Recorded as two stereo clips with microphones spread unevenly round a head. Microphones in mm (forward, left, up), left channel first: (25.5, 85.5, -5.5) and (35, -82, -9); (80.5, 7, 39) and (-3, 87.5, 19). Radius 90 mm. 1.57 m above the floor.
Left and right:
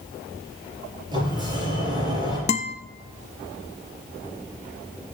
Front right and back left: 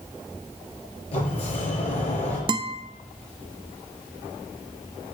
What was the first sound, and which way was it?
A sliding door, 20° right.